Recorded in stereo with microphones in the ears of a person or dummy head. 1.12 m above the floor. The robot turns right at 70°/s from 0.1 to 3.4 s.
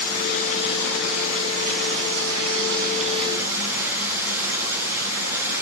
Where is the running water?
120° left, 6.5 m; by 5.6 s 10° right, 6.5 m.